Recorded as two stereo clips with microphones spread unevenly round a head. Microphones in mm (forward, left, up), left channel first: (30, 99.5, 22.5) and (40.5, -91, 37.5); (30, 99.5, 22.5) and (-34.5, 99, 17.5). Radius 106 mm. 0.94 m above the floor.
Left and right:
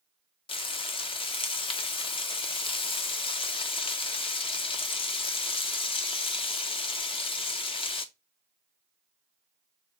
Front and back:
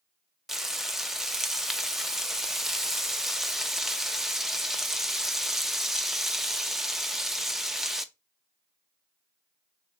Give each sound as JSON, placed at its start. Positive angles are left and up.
{"t": 0.5, "sound": "frying", "azimuth_deg": 105, "distance_m": 0.6}